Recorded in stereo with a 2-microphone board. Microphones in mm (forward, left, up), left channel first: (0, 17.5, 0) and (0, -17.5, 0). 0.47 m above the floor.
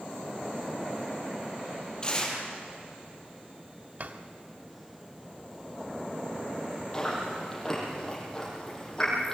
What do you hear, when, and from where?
2.0 s tearing paper: 25° left (ahead or behind), 6 m
4.0 s a drawer: 60° right (ahead or behind), 1.7 m
6.9 s chewing: 15° left (ahead or behind), 9 m